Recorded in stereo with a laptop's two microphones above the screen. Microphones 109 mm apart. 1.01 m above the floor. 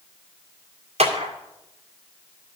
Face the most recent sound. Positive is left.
turn(degrees=-70)  # may be behind; listen again after turning